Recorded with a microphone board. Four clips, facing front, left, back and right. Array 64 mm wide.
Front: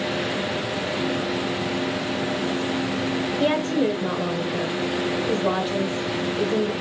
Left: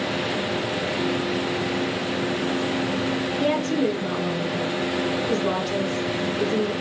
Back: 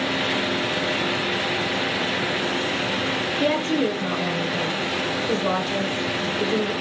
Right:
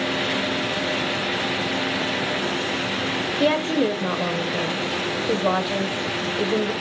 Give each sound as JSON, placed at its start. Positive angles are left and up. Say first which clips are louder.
{"t": 3.4, "sound": "a woman speaking", "louder": "right 3 dB, even", "azimuth_deg": -80, "distance_m": 1.1}